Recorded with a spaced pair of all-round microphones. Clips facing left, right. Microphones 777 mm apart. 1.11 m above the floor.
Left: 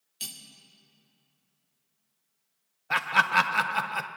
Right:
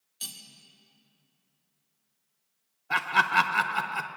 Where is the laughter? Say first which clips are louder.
Even; 20° left (ahead or behind), 0.5 m.